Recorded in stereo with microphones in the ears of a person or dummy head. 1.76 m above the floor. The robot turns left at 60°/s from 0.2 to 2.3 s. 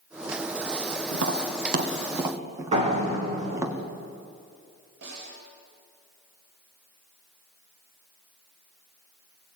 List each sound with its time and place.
1.1 s tapping: 85° right, 1.9 m; by 3.7 s 15° right (ahead or behind), 1.9 m
2.7 s a door slam: 40° right (ahead or behind), 4.5 m
5.0 s a snare drum: 60° right (ahead or behind), 8.5 m